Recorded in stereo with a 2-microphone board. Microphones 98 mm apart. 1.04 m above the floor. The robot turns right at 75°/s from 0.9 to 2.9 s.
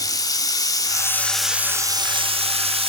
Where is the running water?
145° left, 1.4 m; by 2.9 s 65° right, 1.4 m.